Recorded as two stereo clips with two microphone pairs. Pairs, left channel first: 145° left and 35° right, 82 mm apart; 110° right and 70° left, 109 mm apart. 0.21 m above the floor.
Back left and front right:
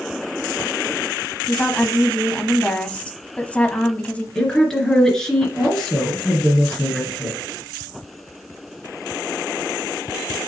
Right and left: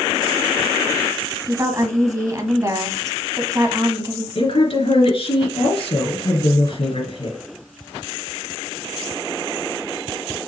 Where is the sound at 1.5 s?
80° left, 1.0 m.